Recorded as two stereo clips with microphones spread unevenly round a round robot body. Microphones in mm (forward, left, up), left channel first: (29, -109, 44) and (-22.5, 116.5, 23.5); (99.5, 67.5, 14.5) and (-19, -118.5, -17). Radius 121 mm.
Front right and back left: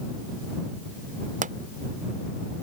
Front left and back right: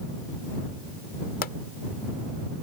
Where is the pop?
90° left.